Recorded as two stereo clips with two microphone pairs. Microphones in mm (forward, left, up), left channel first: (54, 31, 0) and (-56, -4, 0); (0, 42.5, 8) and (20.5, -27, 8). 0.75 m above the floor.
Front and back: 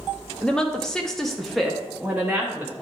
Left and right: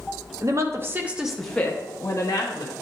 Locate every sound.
0.4 s a woman speaking: 60° right, 1.1 m; by 2.7 s 115° left, 1.4 m